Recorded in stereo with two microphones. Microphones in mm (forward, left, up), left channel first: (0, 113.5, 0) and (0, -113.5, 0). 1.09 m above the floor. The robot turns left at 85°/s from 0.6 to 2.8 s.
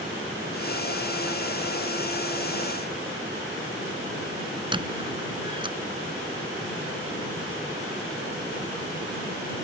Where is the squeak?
20° right (ahead or behind).